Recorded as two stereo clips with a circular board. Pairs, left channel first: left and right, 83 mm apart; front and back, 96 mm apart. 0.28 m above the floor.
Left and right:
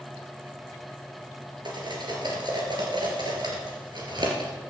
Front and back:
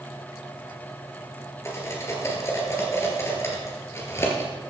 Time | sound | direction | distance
1.6 | cutlery clinking | 60° right | 3.5 m